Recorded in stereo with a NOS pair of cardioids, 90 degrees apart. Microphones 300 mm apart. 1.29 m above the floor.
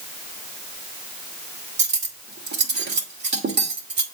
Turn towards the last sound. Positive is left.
turn(degrees=-35)